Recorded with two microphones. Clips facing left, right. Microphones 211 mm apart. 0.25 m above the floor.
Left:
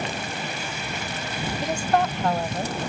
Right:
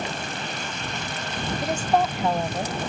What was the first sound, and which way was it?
A woman speaking, 5° right (ahead or behind).